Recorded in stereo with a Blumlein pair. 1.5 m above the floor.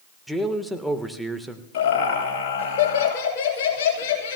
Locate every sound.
0.3 s a man speaking: straight ahead, 1.6 m
1.7 s laughter: 45° left, 7.5 m